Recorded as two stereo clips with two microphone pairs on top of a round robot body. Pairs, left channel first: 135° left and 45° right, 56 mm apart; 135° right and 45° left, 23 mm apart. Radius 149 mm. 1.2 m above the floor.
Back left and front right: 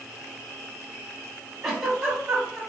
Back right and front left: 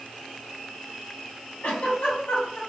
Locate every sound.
1.6 s a giggle: 130° right, 1.7 m